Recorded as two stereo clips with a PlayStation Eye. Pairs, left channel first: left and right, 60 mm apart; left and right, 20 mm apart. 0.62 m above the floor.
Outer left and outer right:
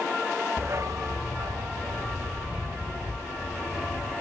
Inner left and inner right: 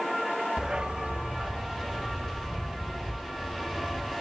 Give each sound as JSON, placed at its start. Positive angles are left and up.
{"t": 0.6, "sound": "a dog barking", "side_deg": -35, "distance_m": 0.8}